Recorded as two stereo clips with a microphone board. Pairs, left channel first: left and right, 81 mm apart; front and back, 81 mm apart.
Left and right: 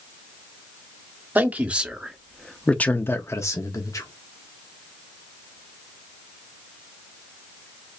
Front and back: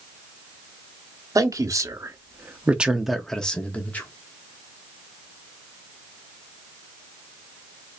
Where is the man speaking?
155° right, 1.0 m; by 4.1 s 60° left, 1.0 m.